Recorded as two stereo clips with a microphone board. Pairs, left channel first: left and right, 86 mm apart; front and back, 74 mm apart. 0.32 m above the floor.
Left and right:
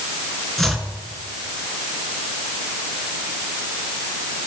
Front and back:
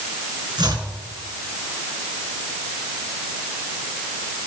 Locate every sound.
0.6 s chopping: 175° left, 3.5 m